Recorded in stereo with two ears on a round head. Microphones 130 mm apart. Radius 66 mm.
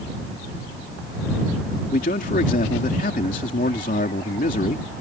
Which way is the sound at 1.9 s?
55° left (ahead or behind).